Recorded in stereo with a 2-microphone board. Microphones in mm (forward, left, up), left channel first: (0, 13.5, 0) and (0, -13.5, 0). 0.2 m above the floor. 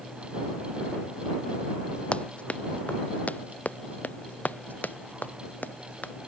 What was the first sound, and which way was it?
Running footsteps, 45° left (ahead or behind).